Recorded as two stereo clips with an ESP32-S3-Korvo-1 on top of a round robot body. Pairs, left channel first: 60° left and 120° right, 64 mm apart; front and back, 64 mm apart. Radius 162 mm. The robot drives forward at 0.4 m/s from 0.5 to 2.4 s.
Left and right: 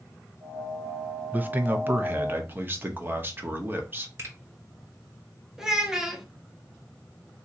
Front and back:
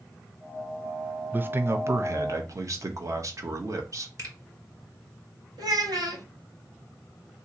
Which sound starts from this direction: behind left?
A child speaking, at 5.6 s.